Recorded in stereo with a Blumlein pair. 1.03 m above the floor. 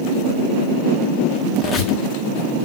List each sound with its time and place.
1.6 s a squeak: 25° left, 2 m